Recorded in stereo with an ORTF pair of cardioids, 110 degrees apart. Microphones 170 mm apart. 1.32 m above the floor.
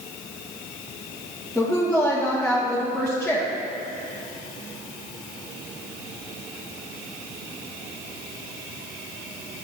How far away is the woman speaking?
About 1.9 m.